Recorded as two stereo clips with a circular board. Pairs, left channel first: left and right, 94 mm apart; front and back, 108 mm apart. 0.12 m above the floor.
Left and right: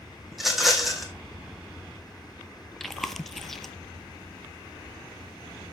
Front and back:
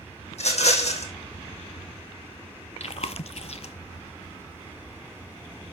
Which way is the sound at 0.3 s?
Straight ahead.